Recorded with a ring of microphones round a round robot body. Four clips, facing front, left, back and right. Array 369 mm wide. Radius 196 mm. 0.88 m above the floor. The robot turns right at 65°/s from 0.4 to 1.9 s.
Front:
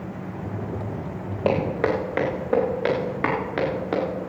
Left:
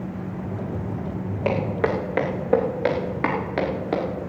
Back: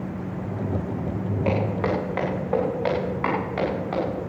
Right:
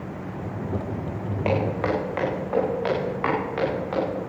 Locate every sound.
1.4 s footsteps: 20° left, 3.5 m; by 4.0 s 50° left, 5.5 m